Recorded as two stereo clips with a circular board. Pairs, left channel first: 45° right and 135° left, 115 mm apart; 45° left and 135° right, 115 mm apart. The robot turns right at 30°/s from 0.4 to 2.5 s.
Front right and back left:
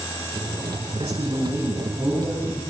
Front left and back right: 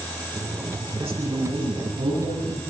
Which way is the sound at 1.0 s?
Straight behind.